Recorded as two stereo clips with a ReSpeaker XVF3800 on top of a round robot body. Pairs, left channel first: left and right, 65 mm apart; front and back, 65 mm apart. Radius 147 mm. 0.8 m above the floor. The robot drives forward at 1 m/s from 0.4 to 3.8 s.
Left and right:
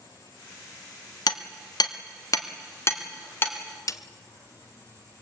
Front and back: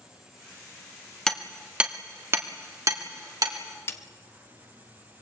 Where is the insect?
95° left, 9 m; by 5.2 s 115° left, 10 m.